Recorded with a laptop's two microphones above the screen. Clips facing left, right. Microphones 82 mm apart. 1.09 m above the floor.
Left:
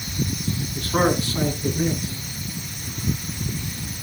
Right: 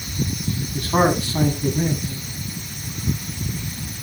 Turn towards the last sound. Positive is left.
turn(degrees=-90)